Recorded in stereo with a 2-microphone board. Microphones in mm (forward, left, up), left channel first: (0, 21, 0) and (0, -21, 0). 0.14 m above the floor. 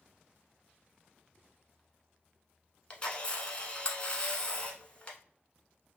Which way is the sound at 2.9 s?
25° left (ahead or behind).